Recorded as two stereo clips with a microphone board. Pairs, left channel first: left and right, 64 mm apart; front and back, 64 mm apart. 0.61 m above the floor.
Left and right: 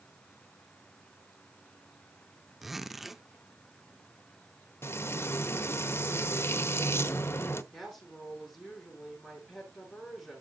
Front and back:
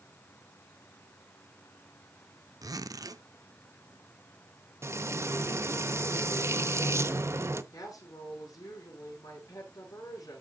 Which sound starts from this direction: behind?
A zipper, at 2.6 s.